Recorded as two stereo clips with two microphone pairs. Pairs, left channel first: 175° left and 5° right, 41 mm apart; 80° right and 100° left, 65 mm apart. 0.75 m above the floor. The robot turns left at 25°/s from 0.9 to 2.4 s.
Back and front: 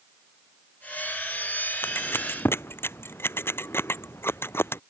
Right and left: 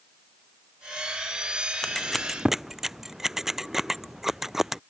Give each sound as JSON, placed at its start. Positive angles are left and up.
{"t": 1.8, "sound": "scissors", "azimuth_deg": -160}